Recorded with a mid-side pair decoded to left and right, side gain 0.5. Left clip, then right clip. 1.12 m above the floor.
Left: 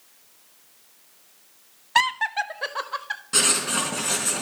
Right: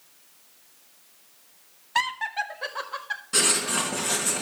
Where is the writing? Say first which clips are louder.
Left 1 dB; 15° left, 4 m.